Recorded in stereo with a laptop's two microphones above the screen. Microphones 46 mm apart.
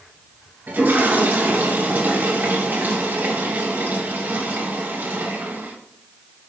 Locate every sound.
0.7 s a toilet flushing: 50° right (ahead or behind), 5 m